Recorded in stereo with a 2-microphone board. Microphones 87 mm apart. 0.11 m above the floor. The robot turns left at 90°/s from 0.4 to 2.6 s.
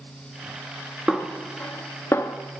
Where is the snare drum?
10° right (ahead or behind), 0.7 m; by 2.4 s 30° left (ahead or behind), 0.7 m.